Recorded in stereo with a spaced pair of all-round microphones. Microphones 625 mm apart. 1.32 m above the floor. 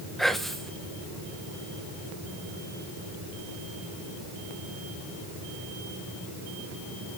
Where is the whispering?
Centre (ahead or behind), 0.9 m.